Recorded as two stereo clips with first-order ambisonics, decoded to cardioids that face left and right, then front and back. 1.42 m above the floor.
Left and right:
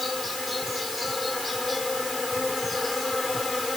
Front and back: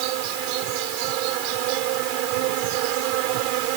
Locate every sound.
0.0 s an insect: 170° left